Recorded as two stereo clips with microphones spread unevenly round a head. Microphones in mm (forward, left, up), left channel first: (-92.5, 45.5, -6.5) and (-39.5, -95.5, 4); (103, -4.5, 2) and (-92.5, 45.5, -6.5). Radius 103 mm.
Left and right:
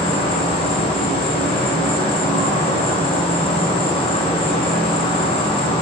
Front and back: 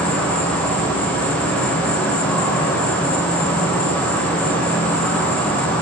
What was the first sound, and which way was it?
An insect, 70° left.